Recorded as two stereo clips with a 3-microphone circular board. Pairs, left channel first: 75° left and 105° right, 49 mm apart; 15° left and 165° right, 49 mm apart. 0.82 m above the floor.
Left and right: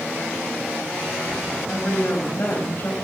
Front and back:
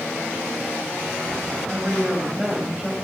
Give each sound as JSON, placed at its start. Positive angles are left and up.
{"t": 1.7, "sound": "a woman speaking", "azimuth_deg": 130, "distance_m": 4.5}